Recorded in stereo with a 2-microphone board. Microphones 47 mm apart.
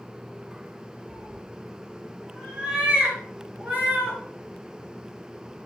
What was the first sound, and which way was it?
A cat meowing, 15° right (ahead or behind).